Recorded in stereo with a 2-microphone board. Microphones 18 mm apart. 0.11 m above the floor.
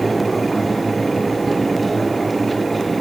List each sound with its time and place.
Only background noise.